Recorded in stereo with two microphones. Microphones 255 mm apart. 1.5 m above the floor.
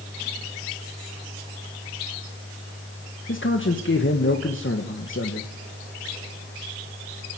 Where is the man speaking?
50° left (ahead or behind), 1.6 m.